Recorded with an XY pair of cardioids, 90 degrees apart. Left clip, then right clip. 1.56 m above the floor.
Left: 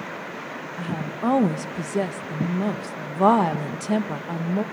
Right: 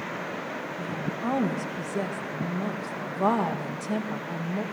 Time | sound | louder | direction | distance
0.8 | a woman speaking | left 2 dB | 55° left | 1.5 m